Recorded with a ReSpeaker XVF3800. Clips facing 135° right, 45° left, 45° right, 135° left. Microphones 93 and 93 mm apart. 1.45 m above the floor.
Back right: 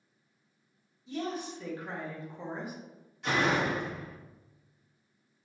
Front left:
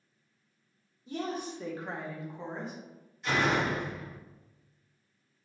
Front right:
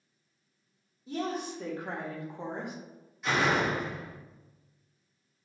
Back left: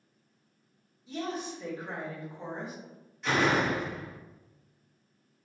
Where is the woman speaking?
Straight ahead, 1.0 m; by 2.7 s 55° right, 0.7 m.